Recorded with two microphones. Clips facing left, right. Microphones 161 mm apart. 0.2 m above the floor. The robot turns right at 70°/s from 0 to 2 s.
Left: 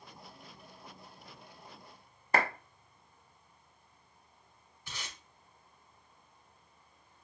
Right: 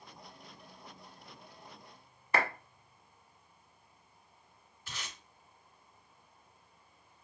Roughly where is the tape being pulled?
Centre.